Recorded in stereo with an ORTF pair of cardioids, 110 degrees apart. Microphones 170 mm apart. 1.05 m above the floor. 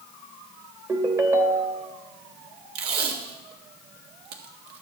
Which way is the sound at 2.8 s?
70° right.